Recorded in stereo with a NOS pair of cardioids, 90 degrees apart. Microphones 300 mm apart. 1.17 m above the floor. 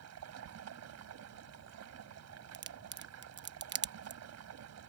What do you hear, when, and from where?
0.0 s running water: 60° right
2.5 s a crack: 40° right